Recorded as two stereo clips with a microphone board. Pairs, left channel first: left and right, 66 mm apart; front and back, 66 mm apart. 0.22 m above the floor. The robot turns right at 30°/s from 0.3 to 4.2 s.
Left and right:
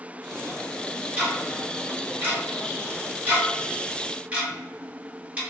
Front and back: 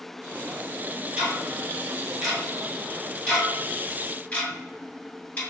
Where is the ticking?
130° right, 1.0 m; by 5.4 s 40° right, 1.0 m.